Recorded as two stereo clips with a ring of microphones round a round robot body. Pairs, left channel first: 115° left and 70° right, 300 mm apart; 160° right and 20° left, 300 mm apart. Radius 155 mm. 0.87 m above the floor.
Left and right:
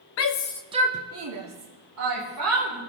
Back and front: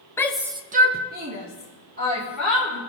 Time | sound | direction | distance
0.2 | a shout | 125° left | 0.8 m